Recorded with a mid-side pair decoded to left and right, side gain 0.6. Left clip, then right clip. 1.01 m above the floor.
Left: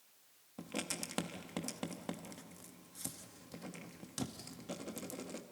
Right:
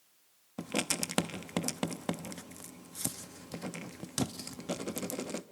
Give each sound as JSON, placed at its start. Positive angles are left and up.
{"t": 0.6, "sound": "writing", "azimuth_deg": -45, "distance_m": 0.7}